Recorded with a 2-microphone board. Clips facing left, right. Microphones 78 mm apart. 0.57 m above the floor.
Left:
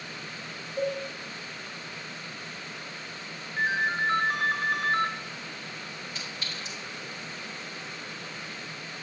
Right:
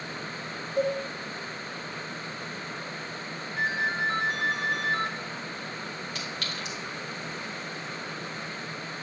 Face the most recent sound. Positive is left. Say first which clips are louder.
# right 3 dB
turn(degrees=-65)  # may be behind; listen again after turning